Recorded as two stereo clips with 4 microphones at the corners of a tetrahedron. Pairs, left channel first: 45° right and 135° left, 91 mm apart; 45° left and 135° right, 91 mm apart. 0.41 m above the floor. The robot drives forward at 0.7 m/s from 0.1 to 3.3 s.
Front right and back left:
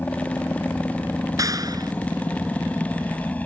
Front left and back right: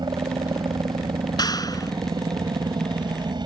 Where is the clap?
85° left; by 1.9 s 90° left.